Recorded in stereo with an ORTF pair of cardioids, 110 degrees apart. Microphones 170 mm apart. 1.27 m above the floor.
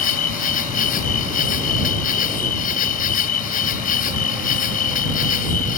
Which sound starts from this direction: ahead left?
An insect, at 0.0 s.